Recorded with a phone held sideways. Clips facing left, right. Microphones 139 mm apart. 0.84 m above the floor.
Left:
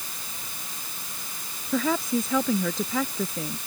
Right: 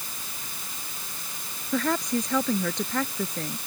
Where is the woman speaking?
5° left (ahead or behind).